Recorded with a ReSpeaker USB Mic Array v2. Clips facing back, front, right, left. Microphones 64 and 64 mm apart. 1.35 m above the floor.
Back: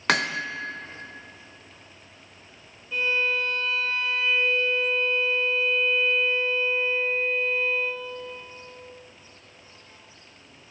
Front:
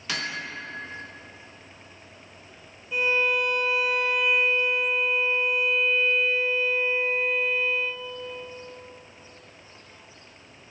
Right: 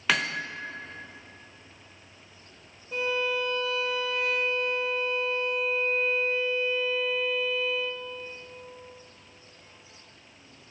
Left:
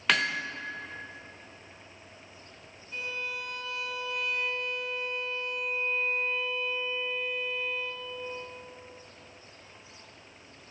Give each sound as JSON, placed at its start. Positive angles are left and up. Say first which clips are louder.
{"t": 0.1, "sound": "hammering", "louder": "back 8 dB, even", "azimuth_deg": 180, "distance_m": 0.8}
{"t": 2.9, "sound": "a violin", "louder": "front 2 dB, right 9 dB", "azimuth_deg": -75, "distance_m": 1.3}